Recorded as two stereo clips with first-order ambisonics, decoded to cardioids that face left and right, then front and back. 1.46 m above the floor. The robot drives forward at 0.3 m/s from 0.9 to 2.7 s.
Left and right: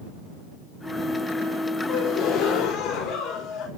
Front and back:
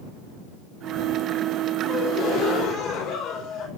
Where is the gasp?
50° left, 3 m.